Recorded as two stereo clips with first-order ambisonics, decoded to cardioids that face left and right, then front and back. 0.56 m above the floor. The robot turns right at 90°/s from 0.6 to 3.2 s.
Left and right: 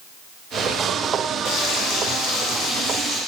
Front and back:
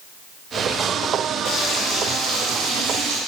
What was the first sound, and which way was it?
Frying, 35° left.